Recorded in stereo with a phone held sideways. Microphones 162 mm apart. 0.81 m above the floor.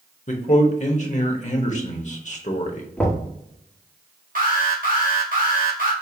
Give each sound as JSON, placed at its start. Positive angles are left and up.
{"t": 0.3, "sound": "a man speaking", "side_deg": 45, "distance_m": 1.0}
{"t": 3.0, "sound": "knocking", "side_deg": 10, "distance_m": 1.5}
{"t": 4.3, "sound": "an alarm", "side_deg": -55, "distance_m": 1.5}